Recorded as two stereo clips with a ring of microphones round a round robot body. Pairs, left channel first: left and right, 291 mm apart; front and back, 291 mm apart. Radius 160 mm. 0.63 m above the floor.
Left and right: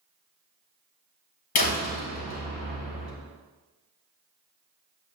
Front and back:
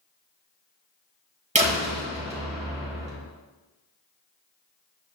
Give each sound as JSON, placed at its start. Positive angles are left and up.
{"t": 1.6, "sound": "a door slam", "azimuth_deg": 110, "distance_m": 2.0}